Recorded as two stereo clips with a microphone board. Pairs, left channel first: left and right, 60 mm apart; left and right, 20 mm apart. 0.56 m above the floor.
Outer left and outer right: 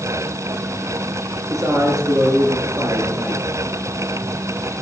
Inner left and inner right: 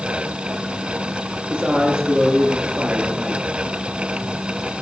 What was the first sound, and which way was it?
A man speaking, 65° right (ahead or behind).